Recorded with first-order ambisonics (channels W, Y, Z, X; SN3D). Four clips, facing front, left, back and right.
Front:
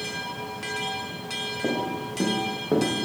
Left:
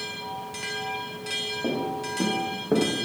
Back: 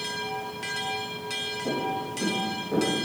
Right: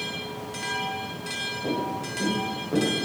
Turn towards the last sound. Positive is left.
turn(degrees=50)